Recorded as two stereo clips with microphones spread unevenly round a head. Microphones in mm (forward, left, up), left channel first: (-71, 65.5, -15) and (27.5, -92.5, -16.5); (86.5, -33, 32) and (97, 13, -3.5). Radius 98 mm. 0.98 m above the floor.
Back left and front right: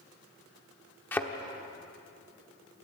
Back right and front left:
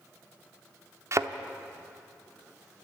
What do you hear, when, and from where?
1.1 s a thud: 40° left, 1.1 m